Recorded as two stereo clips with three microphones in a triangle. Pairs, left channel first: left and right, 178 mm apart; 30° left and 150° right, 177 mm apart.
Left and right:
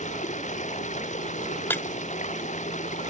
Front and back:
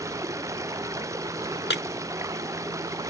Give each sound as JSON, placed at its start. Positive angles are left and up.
{"t": 0.0, "sound": "running water", "azimuth_deg": 135}
{"t": 1.7, "sound": "breaking glass", "azimuth_deg": 10}